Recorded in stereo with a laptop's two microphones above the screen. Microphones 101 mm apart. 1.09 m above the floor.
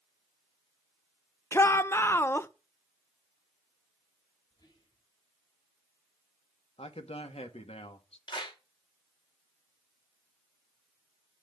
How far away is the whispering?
About 8 m.